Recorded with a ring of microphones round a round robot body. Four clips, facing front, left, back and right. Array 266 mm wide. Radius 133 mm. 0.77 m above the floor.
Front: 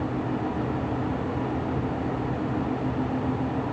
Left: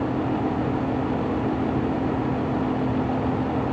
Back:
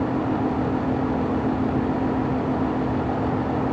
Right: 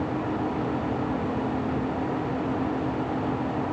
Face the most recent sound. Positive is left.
No sound to turn to.